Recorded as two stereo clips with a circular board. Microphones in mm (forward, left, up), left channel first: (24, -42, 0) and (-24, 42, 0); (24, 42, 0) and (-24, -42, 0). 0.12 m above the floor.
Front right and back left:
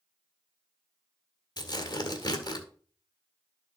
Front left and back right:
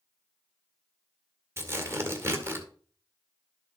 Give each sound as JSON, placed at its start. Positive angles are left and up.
{"t": 1.6, "sound": "tearing paper", "azimuth_deg": -70, "distance_m": 1.5}